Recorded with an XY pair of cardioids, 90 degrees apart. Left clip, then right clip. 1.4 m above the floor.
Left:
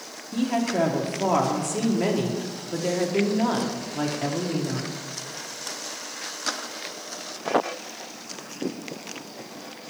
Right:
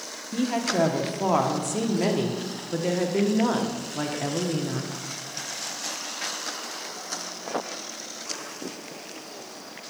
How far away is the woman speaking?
About 0.9 m.